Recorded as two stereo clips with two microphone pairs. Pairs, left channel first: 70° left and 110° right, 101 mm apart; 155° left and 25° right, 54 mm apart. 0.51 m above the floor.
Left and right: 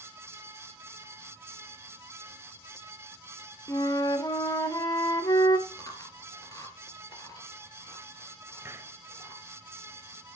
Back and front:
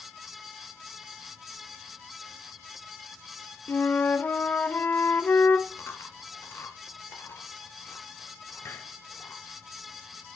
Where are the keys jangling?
I don't hear keys jangling.